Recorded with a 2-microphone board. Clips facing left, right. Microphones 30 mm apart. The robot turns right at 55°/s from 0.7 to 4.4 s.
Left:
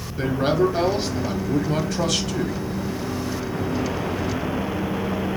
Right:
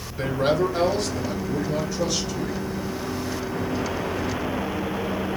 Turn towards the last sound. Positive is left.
turn(degrees=-150)